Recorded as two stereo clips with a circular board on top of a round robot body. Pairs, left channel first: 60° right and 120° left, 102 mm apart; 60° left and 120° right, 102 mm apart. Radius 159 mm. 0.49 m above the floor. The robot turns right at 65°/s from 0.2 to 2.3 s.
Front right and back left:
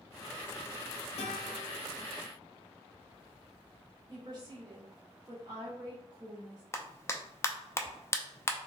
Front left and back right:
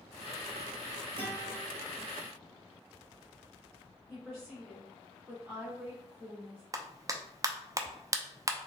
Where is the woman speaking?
165° left, 2 m.